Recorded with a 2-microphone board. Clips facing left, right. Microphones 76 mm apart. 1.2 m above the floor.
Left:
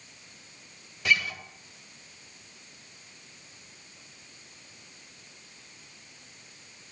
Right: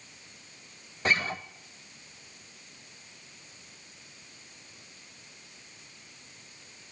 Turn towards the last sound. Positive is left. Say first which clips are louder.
# even
turn(degrees=-35)  # may be behind; listen again after turning